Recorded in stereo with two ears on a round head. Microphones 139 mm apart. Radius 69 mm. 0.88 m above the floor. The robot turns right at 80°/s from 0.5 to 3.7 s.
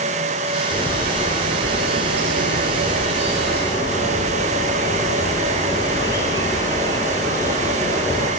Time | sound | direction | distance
0.7 | a bird | 140° left | 7 m